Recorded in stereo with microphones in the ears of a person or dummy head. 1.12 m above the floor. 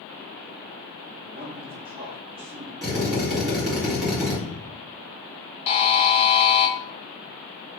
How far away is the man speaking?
About 0.6 m.